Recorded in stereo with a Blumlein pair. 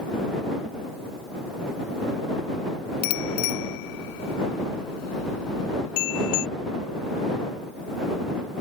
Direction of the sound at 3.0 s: 45° left.